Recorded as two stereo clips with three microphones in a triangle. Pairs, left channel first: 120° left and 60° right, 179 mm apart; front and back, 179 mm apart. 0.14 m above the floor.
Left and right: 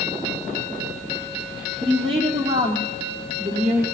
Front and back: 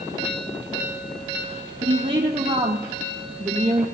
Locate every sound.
1.8 s a woman speaking: 120° right, 3.5 m; by 3.9 s 100° right, 4 m